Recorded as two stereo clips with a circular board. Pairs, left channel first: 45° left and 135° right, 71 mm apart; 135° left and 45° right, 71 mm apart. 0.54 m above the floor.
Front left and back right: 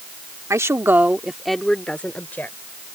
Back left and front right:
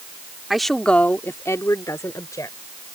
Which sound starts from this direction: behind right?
A woman speaking, at 0.5 s.